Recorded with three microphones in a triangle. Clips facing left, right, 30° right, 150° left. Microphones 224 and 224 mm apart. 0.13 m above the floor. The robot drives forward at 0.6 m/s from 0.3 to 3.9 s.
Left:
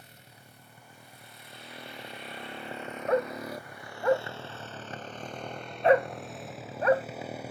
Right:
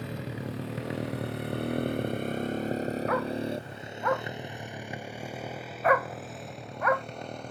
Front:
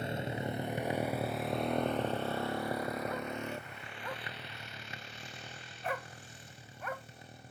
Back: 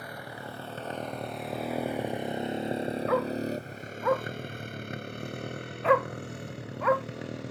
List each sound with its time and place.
0.0 s a motorcycle: 95° right; by 7.5 s 175° left
3.1 s a dog barking: 155° left